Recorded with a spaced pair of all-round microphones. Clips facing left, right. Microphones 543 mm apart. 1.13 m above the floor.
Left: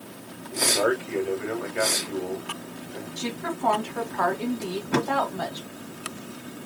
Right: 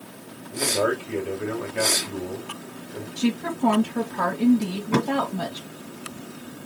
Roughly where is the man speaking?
Right.